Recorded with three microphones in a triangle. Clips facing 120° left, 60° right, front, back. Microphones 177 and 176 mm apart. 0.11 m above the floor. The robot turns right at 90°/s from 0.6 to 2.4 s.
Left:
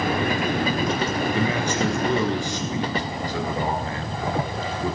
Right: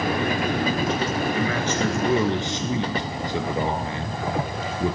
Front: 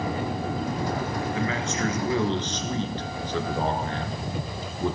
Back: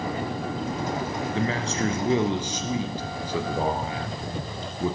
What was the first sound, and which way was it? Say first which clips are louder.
A man speaking: left 1 dB, back 4 dB; 155° left.